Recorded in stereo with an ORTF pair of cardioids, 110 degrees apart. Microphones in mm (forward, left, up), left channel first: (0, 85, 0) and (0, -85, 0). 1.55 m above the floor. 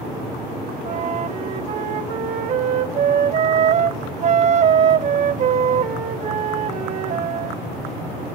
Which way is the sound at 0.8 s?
45° right.